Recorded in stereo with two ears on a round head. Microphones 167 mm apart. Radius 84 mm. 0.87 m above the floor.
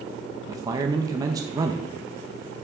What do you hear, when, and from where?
0.5 s a man speaking: 20° right (ahead or behind), 0.8 m